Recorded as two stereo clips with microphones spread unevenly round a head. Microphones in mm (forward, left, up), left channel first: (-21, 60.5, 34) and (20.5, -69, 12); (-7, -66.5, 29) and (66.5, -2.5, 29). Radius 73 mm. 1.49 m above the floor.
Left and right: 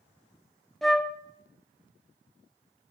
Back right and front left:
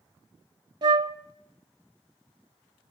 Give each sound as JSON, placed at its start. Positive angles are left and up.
{"t": 0.8, "sound": "a flute", "azimuth_deg": 35, "distance_m": 0.6}